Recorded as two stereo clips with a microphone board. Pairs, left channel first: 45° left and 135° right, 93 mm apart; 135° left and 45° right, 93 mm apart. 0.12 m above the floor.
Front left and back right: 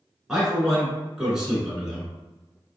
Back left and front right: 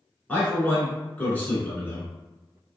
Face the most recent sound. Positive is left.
turn(degrees=155)